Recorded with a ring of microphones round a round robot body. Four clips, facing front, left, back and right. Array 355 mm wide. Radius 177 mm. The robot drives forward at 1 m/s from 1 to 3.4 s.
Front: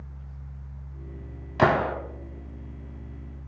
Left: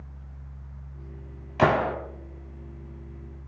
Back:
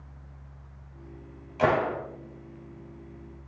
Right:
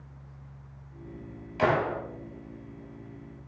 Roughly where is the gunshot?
Ahead left.